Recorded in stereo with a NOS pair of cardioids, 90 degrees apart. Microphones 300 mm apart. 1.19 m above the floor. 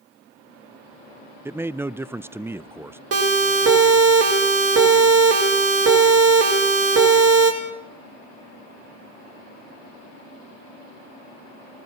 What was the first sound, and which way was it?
A man speaking, 5° right.